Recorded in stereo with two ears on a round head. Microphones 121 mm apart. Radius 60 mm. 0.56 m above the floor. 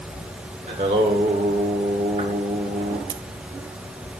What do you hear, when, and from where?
0.7 s singing: 50° right (ahead or behind), 1.6 m
3.1 s scissors: 55° right (ahead or behind), 0.7 m